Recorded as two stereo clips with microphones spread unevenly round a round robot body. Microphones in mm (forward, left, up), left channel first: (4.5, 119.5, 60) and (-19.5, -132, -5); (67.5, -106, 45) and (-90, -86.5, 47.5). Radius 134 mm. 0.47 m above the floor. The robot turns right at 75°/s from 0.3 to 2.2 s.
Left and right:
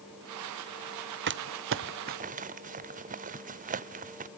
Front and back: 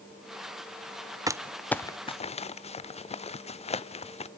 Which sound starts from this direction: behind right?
Crumpling, at 1.3 s.